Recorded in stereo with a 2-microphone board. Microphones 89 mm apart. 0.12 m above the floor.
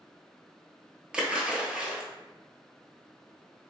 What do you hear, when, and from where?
1.1 s a splash: 10° right (ahead or behind), 0.6 m